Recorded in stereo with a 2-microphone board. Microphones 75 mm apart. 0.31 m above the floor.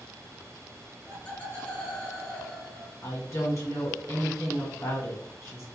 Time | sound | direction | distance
1.1 | laughter | 20° left (ahead or behind) | 1.4 m
3.0 | a woman speaking | 35° left (ahead or behind) | 1.4 m